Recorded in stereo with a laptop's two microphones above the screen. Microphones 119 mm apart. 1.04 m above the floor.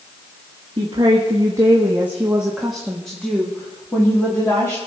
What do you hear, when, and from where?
0.8 s a woman speaking: 45° right (ahead or behind), 1.4 m; by 4.8 s 25° left (ahead or behind), 2 m